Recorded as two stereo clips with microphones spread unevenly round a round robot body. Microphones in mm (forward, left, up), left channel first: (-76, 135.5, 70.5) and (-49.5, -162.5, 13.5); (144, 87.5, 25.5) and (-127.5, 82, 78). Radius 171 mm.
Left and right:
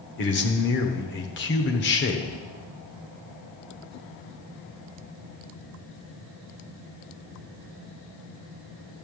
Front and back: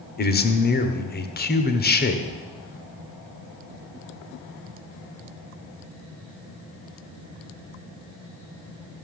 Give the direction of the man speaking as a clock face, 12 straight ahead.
11 o'clock.